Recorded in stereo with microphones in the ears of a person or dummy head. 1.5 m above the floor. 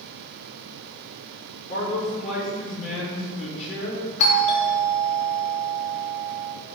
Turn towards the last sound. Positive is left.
turn(degrees=35)  # may be behind; listen again after turning